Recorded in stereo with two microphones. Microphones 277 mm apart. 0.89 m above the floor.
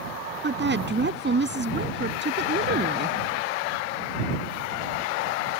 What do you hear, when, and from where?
0.4 s a woman speaking: 40° right (ahead or behind)